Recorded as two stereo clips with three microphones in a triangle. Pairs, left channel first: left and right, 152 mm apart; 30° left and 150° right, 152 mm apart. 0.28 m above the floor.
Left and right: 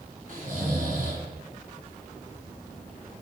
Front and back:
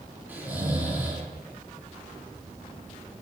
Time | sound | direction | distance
0.3 | snoring | 75° right | 3.5 m